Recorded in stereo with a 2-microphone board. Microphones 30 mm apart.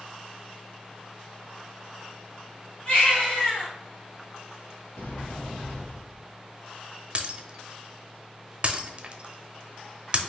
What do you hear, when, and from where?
2.9 s a baby crying: 40° left (ahead or behind), 2 m
4.9 s a sliding door: 75° left (ahead or behind), 1.6 m
7.2 s breaking glass: 40° right (ahead or behind), 0.6 m